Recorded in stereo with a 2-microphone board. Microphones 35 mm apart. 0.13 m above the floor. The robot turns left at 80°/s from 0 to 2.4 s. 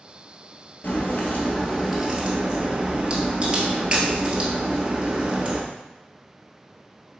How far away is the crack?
About 1.2 m.